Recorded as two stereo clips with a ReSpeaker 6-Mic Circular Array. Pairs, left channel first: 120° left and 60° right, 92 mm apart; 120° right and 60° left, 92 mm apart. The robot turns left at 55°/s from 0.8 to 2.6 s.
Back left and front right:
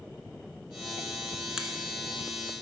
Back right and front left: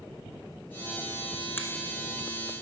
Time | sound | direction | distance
1.6 | a finger snap | 135° right | 1.0 m